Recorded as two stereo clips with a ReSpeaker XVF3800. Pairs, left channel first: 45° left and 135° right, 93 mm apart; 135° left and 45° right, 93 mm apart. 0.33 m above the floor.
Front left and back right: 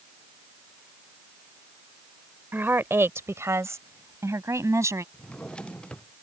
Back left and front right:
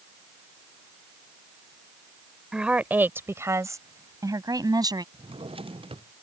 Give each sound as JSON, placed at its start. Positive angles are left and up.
{"t": 2.5, "sound": "a woman speaking", "azimuth_deg": -115}
{"t": 5.1, "sound": "a drawer", "azimuth_deg": -35}